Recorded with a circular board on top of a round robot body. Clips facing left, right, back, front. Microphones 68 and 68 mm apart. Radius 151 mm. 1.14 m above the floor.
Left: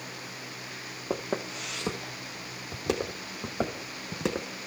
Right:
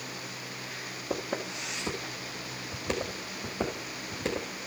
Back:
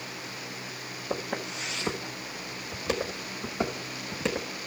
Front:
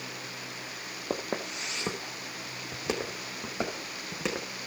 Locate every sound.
1.1 s footsteps: 45° left, 1.8 m; by 4.5 s 80° left, 4.5 m